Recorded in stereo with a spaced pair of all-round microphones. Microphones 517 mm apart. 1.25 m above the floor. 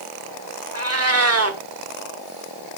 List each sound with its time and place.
0.7 s a cat meowing: 30° right (ahead or behind), 1.0 m